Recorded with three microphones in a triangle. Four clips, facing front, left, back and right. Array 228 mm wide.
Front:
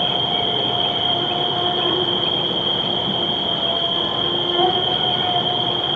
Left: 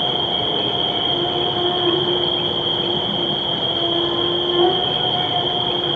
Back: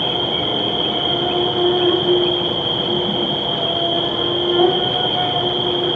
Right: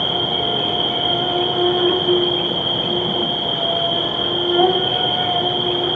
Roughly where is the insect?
Behind right.